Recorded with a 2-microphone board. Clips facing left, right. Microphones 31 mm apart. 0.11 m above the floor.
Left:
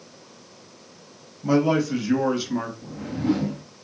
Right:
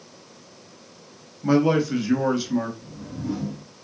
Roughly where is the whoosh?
Left.